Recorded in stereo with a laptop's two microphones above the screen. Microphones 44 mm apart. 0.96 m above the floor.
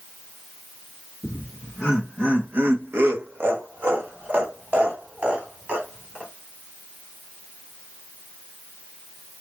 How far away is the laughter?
About 1.4 m.